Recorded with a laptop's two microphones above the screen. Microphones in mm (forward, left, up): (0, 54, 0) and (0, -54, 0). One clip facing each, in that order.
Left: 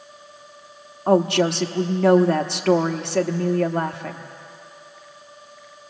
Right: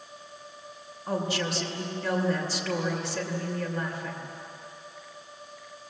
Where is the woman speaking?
65° left (ahead or behind), 1.2 m.